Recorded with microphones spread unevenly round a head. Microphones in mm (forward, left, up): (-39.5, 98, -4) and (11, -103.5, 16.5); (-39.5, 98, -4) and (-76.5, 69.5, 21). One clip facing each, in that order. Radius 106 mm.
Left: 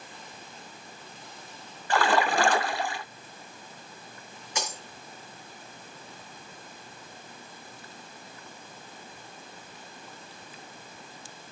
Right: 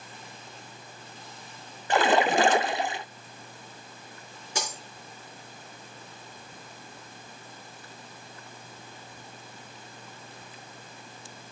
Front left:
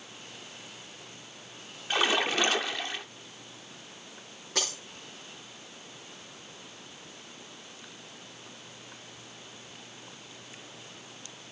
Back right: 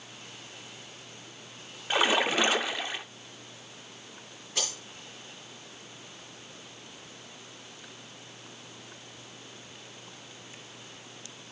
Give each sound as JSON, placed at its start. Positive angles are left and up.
{"t": 1.9, "sound": "a splash", "azimuth_deg": -125, "distance_m": 0.5}
{"t": 4.5, "sound": "breaking glass", "azimuth_deg": -20, "distance_m": 5.0}